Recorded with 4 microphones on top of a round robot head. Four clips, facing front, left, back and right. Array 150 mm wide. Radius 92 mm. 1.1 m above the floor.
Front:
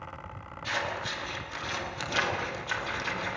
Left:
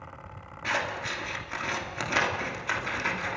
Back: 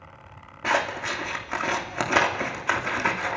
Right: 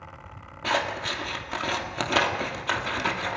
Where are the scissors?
150° right, 2.5 m.